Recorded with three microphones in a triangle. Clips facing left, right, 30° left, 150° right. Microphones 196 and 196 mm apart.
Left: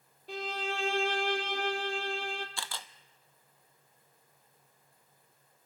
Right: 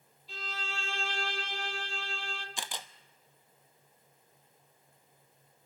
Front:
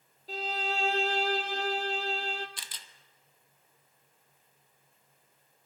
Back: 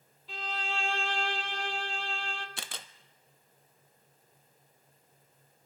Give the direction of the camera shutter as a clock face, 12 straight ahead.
5 o'clock.